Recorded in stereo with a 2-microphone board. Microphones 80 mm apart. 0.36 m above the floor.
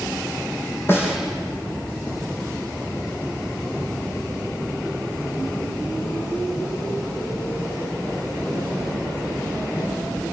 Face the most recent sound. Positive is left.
turn(degrees=30)  # may be behind; listen again after turning